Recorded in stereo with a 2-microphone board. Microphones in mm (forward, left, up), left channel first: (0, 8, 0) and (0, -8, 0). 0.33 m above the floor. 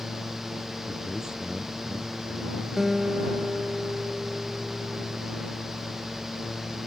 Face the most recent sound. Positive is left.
turn(degrees=-20)  # may be behind; listen again after turning